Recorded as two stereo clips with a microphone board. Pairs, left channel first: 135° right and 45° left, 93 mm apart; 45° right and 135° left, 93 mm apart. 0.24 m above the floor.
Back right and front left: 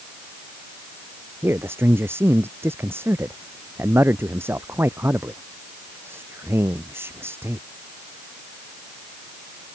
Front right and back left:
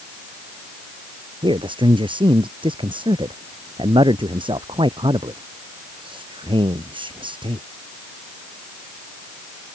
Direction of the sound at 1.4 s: 110° left.